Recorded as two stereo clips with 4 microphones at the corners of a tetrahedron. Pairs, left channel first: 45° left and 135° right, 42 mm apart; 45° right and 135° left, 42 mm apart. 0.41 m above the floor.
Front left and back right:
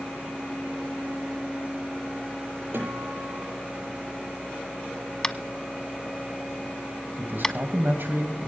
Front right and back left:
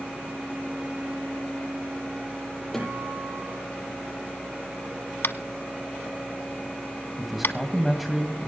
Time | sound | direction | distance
2.7 | a guitar | 130° right | 9.5 m
5.2 | tapping | 25° right | 0.8 m
7.2 | a man speaking | 140° right | 2.5 m